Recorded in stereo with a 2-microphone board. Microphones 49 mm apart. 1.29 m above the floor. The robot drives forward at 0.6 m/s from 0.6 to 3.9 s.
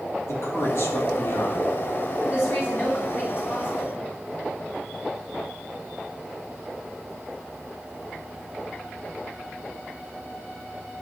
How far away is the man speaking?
About 2.5 m.